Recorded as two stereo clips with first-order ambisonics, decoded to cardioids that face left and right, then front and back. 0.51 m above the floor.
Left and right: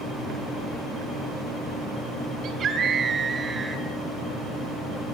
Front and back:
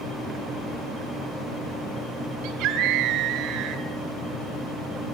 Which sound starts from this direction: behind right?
A scream, at 2.4 s.